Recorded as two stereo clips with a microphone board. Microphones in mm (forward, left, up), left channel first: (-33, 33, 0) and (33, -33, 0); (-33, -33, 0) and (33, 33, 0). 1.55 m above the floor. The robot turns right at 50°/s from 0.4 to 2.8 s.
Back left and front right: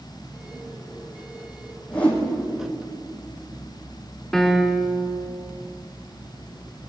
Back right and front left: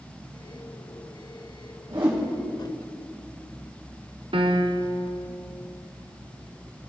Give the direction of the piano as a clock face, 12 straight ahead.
10 o'clock.